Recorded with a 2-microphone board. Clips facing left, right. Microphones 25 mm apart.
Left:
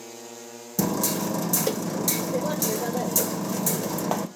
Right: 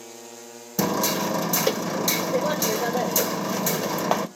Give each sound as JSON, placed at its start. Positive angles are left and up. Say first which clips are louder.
{"t": 0.8, "sound": "hammering", "louder": "right 2 dB", "side_deg": -25, "distance_m": 0.6}